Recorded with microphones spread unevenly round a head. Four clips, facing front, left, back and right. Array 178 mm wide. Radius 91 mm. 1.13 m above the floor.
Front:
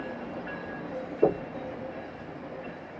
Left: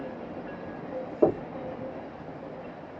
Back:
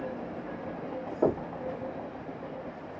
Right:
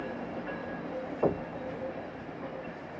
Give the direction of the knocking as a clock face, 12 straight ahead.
9 o'clock.